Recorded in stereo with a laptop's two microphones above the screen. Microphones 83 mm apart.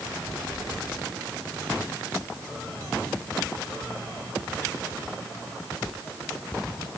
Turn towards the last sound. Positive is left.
No sound to turn to.